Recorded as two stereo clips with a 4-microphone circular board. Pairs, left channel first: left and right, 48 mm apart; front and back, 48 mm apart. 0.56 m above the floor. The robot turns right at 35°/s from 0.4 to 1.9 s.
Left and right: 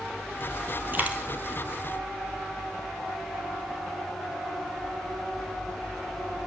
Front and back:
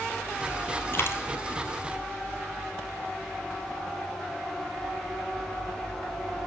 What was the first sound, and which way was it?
A dropped coin, 40° right.